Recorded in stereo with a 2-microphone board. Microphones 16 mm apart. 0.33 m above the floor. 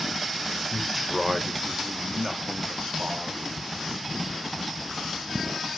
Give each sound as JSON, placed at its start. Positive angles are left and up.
{"t": 0.7, "sound": "a man speaking", "side_deg": 0, "distance_m": 1.0}